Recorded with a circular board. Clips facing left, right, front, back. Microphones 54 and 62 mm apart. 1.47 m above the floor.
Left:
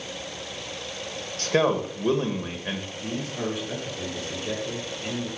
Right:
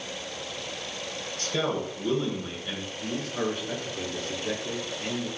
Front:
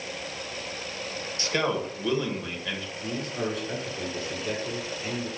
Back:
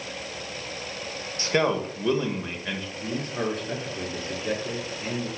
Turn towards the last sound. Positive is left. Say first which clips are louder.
# even, back 2 dB
turn(degrees=-135)